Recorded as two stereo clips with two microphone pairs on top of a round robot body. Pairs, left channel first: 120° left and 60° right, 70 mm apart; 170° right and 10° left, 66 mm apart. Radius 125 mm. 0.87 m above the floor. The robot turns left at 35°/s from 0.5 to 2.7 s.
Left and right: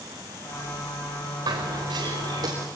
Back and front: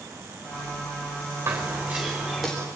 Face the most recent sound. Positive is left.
turn(degrees=-95)